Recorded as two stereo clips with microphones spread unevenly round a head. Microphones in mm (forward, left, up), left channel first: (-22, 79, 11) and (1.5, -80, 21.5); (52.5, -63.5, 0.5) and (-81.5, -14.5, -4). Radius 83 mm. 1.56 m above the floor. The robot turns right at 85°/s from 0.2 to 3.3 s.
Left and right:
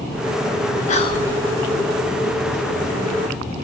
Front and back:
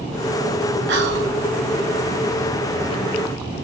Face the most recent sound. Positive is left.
turn(degrees=-10)